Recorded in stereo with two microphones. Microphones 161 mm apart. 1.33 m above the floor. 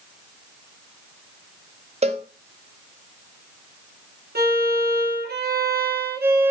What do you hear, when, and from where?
2.0 s a cowbell: 40° right (ahead or behind), 0.6 m
4.3 s a violin: 80° right, 1.1 m